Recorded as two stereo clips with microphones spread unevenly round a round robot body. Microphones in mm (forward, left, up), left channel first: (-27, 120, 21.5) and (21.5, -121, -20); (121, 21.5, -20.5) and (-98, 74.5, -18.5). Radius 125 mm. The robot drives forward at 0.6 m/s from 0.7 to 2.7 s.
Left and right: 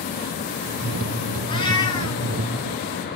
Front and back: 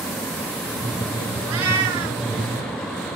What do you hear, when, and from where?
1.5 s a cat meowing: 170° left, 2 m